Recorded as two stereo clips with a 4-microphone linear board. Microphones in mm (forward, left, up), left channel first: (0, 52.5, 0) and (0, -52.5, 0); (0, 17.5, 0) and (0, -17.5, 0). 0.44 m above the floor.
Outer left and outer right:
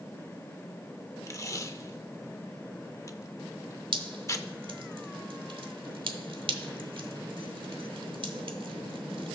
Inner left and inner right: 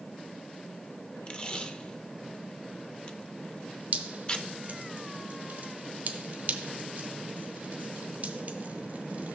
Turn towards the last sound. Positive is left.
turn(degrees=-55)  # may be behind; listen again after turning